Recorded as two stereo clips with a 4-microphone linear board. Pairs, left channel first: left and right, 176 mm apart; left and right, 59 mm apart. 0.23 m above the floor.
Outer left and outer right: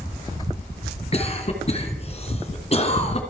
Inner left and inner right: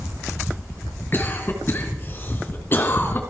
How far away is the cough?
About 2.5 m.